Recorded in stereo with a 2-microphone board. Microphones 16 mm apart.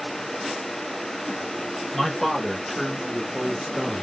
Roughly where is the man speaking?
Left.